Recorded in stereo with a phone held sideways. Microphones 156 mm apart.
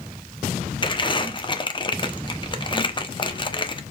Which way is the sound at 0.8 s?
30° left (ahead or behind).